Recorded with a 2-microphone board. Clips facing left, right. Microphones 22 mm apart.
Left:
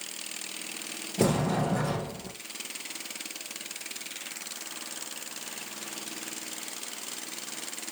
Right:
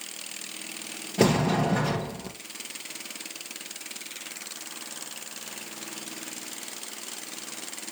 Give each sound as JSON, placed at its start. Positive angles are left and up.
{"t": 1.2, "sound": "a sliding door", "side_deg": -50, "distance_m": 2.0}